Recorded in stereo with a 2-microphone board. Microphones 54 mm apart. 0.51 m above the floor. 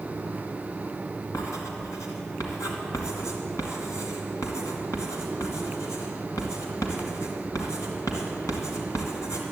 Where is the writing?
80° left, 2.5 m.